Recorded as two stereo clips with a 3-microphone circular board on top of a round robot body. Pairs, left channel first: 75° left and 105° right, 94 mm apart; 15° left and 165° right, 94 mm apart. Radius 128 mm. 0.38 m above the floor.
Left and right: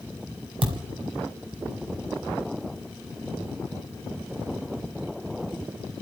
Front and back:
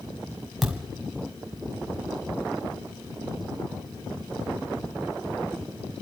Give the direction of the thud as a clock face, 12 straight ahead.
3 o'clock.